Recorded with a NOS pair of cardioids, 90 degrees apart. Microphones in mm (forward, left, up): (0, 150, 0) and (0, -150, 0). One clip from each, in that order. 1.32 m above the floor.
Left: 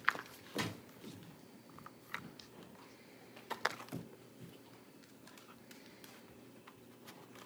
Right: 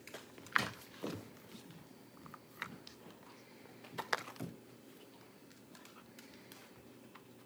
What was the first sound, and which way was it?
A drawer, straight ahead.